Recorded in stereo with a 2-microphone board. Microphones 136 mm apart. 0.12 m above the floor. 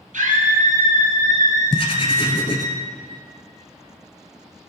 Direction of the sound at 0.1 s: 70° right (ahead or behind).